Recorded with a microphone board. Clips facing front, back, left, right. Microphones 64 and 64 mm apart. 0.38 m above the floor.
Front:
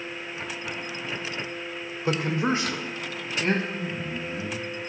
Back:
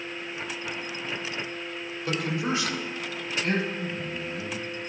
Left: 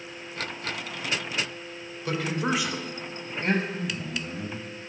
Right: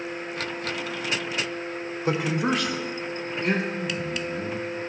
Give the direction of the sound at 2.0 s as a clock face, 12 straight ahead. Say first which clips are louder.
Front 4 dB, right 3 dB; 1 o'clock.